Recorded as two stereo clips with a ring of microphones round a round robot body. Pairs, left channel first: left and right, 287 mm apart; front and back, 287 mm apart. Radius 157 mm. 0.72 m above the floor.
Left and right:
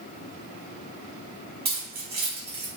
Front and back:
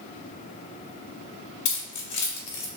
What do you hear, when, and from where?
1.6 s keys jangling: 30° right, 0.9 m